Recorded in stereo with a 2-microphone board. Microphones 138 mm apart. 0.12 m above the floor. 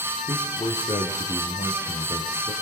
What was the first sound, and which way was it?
A man speaking, 35° left (ahead or behind).